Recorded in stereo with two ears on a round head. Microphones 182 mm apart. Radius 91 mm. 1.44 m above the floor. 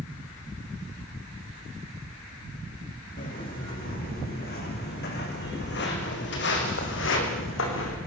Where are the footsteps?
45° left (ahead or behind), 7 m; by 8.0 s 70° left (ahead or behind), 6 m.